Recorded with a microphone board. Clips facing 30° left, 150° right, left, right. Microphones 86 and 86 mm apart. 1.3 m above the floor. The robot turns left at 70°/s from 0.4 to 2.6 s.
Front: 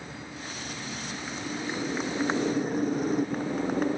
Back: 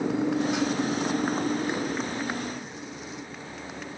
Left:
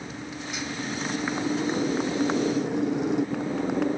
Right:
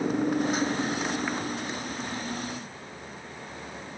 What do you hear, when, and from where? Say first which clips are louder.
0.0 s a motorcycle: back 15 dB, right 11 dB; 130° right; by 4.0 s 75° left